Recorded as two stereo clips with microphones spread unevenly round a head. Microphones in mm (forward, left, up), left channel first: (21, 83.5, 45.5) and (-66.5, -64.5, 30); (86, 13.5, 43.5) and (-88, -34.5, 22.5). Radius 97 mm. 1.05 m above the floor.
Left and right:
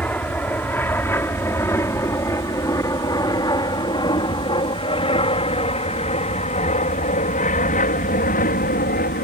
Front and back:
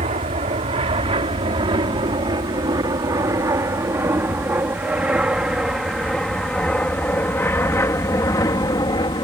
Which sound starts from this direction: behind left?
An aircraft, at 0.0 s.